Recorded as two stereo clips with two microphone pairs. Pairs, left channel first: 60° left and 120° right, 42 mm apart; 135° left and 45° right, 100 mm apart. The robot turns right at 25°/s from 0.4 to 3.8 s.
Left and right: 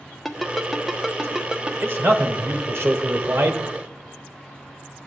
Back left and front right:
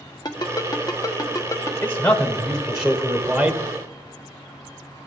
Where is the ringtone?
145° left, 0.8 m; by 1.7 s straight behind, 0.8 m.